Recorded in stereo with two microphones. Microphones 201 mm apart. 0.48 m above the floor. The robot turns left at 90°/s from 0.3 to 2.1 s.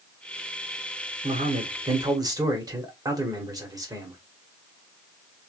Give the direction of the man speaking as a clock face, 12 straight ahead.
2 o'clock.